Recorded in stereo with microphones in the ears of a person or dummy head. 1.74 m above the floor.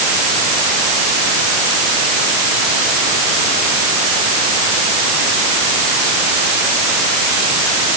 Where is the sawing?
I don't hear sawing.